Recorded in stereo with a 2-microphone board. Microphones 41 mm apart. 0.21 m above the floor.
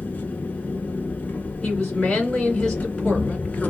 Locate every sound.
0.0 s an engine running: 35° left (ahead or behind), 1.1 m
1.6 s a woman speaking: 15° left (ahead or behind), 2.5 m